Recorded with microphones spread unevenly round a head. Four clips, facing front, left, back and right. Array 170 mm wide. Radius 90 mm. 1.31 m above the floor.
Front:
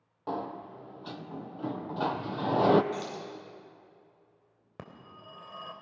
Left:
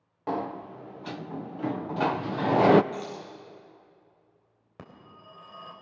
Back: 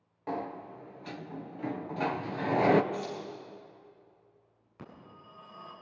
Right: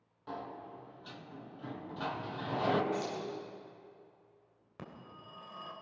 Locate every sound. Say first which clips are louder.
0.3 s a sliding door: left 12 dB, front 1 dB; 90° left, 0.6 m
2.9 s keys jangling: even, back 1 dB; 20° right, 7.5 m
4.8 s a phone ringing: left 1 dB, front 2 dB; 15° left, 3.5 m